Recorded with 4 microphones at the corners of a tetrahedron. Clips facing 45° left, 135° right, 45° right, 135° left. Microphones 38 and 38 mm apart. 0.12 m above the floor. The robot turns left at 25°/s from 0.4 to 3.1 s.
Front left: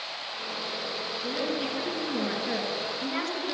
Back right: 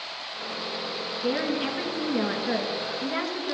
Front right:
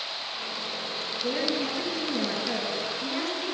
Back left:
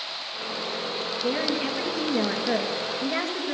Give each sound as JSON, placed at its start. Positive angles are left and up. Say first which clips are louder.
{"t": 1.2, "sound": "a woman speaking", "louder": "back right 5 dB, back left 1 dB", "azimuth_deg": -160, "distance_m": 2.0}